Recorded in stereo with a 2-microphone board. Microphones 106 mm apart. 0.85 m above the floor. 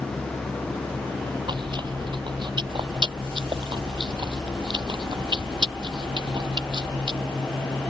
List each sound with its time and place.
1.5 s chewing: 45° right (ahead or behind)